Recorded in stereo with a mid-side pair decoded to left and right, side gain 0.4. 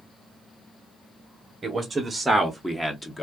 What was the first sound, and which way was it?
A man speaking, 35° right.